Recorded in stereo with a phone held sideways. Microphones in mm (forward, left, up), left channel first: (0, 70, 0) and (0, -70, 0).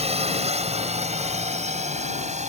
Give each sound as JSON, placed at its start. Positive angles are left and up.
{"t": 0.0, "sound": "a drone", "side_deg": -50}